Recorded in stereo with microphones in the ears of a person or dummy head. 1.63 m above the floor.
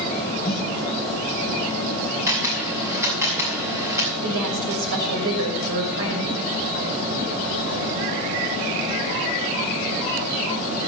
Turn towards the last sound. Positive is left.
turn(degrees=-70)  # may be behind; listen again after turning